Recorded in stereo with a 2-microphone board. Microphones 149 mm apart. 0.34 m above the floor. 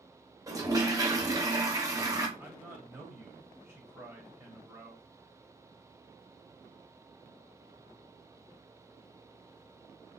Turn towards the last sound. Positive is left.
turn(degrees=-15)  # may be behind; listen again after turning